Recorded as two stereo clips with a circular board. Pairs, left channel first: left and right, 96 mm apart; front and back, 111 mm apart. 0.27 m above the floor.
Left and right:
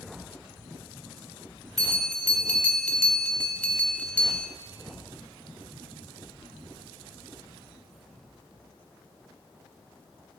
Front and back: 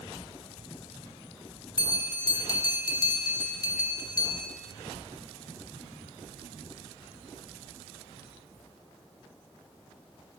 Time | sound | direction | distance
1.8 | a bell | 20° left | 0.6 m